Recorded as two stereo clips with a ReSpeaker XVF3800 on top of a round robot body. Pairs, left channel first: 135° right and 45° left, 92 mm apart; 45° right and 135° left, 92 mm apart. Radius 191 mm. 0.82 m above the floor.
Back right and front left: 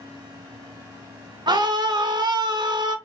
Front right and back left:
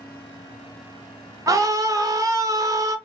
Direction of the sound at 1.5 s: 85° left.